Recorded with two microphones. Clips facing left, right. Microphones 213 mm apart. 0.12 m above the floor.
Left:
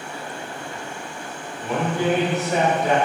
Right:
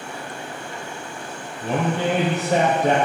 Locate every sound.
1.6 s a man speaking: 30° right (ahead or behind), 2.5 m